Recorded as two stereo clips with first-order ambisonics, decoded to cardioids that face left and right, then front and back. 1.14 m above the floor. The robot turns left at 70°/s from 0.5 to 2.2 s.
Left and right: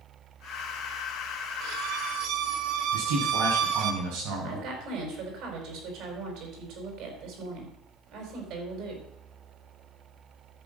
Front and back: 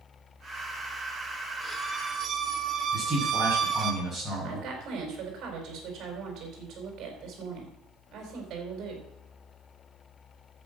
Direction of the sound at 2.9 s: 85° right.